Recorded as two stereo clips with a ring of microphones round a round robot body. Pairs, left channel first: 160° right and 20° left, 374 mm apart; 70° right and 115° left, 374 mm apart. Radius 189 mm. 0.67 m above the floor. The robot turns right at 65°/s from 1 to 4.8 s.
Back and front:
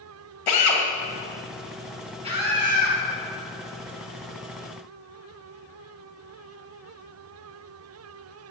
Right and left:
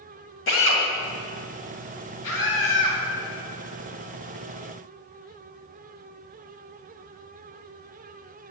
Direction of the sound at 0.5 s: 125° right.